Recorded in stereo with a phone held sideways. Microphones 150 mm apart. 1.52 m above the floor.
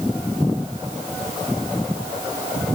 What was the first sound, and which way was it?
Only background noise.